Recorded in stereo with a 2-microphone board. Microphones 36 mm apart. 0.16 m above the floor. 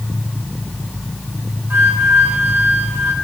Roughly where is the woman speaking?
I don't hear a woman speaking.